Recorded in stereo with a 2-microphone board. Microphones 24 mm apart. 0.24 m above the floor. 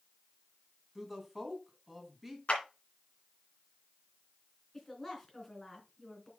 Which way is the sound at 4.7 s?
10° left (ahead or behind).